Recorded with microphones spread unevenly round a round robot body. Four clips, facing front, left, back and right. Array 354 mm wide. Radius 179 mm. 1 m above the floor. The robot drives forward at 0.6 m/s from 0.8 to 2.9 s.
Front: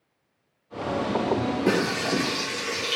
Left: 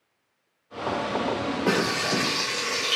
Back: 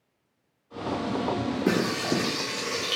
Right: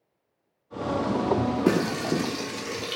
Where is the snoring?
No snoring in this recording.